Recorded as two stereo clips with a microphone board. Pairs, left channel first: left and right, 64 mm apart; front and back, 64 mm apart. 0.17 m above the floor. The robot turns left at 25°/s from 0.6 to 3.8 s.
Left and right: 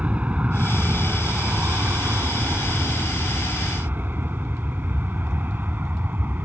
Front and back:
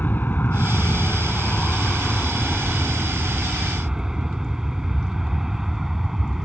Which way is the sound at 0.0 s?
35° right.